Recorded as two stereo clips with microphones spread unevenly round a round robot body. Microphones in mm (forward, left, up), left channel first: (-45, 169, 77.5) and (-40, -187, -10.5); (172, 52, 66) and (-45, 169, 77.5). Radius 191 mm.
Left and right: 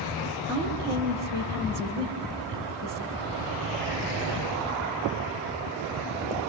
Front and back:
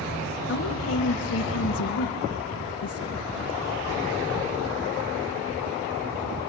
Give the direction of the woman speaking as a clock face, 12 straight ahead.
12 o'clock.